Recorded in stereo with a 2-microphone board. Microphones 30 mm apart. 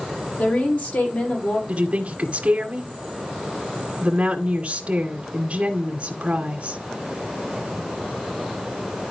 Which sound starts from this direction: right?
A woman speaking, at 1.7 s.